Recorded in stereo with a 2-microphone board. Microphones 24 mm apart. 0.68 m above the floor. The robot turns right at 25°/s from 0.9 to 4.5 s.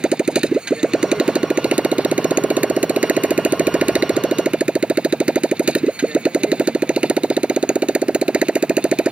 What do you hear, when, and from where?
0.0 s a motorcycle: 145° right; by 9.1 s 55° right